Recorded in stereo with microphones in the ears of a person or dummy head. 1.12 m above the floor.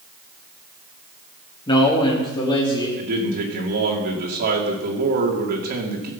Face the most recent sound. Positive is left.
turn(degrees=-55)  # may be behind; listen again after turning